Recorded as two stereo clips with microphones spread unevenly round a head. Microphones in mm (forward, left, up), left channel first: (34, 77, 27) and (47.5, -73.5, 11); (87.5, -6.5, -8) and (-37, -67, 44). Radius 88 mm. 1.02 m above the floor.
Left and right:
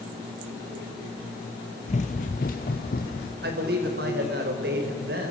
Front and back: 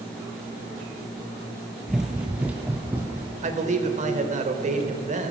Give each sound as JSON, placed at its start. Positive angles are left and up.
{"t": 1.9, "sound": "running footsteps", "azimuth_deg": 135, "distance_m": 1.6}
{"t": 3.4, "sound": "a man speaking", "azimuth_deg": -115, "distance_m": 3.5}